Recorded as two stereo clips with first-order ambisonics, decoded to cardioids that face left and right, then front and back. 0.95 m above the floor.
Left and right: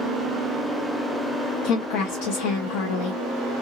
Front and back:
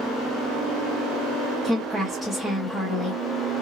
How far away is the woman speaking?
About 0.7 m.